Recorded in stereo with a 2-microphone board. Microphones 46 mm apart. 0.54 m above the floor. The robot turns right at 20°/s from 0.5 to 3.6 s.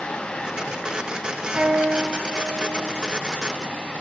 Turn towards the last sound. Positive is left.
turn(degrees=10)